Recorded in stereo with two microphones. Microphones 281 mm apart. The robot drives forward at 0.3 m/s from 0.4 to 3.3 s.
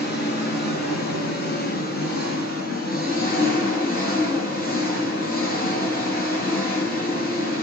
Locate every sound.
0.0 s an engine running: 35° left (ahead or behind), 7 m; by 7.6 s 30° left (ahead or behind), 8 m